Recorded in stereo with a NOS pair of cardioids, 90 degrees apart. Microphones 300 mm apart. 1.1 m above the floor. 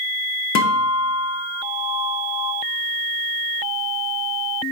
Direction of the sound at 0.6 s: 65° left.